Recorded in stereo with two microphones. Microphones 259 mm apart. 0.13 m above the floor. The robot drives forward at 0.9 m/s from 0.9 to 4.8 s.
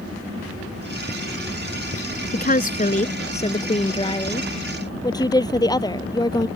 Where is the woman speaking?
30° left (ahead or behind); by 6.5 s 15° left (ahead or behind).